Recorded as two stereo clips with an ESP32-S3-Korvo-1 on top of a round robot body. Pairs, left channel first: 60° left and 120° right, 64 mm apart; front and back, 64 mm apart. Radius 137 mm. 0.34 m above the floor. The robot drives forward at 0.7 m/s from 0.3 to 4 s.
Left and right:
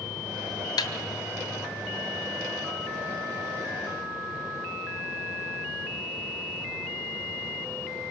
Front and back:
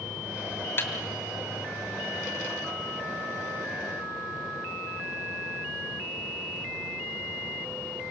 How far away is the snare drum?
About 2 m.